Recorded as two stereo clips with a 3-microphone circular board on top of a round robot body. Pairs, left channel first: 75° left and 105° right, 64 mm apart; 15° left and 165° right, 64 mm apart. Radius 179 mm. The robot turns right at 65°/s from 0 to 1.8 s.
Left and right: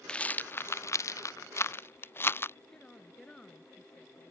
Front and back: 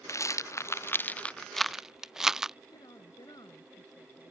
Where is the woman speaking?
5° right.